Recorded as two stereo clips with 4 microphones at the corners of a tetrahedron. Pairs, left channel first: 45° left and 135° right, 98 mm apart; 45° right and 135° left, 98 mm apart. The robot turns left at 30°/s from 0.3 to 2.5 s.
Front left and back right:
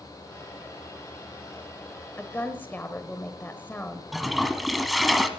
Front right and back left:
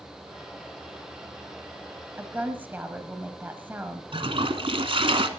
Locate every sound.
2.2 s a woman speaking: 100° left, 1.1 m; by 4.0 s 90° left, 1.1 m
4.1 s a toilet flushing: 135° left, 1.2 m